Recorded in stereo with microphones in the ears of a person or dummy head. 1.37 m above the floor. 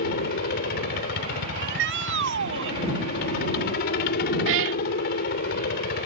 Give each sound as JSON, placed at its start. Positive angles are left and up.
{"t": 0.0, "sound": "a helicopter", "side_deg": 50}
{"t": 1.6, "sound": "a shout", "side_deg": -70}
{"t": 4.5, "sound": "a cat meowing", "side_deg": -70}